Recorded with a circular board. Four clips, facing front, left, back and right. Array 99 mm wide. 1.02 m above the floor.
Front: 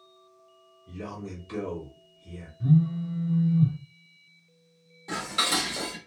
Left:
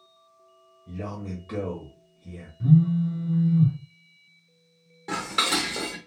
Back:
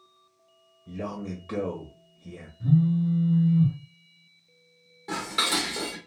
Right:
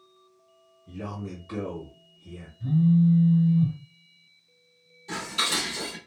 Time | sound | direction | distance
0.9 | a man speaking | 160° left | 1.4 m
2.6 | a phone buzzing | 75° left | 1.2 m
5.1 | dishes clattering | 100° left | 1.6 m